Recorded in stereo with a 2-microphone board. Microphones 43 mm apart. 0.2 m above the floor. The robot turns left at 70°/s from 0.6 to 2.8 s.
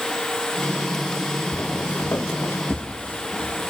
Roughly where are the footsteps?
Left.